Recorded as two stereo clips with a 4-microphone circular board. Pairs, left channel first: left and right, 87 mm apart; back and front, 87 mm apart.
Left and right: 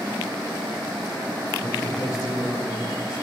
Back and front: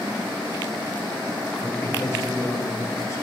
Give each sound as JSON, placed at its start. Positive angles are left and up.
{"t": 1.6, "sound": "a man speaking", "azimuth_deg": 125, "distance_m": 1.2}